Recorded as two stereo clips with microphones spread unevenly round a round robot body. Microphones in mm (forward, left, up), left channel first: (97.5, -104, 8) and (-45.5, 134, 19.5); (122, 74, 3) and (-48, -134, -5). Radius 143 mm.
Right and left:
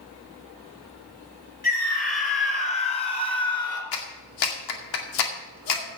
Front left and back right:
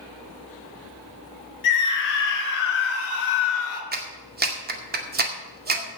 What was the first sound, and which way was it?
A scream, straight ahead.